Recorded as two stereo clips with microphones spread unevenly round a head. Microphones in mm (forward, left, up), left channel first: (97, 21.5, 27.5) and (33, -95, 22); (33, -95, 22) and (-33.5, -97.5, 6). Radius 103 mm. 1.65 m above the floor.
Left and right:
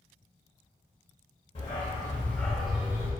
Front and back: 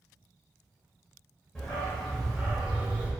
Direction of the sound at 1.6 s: 60° left.